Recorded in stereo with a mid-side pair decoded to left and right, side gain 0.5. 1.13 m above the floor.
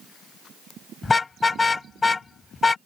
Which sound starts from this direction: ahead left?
A car horn, at 1.0 s.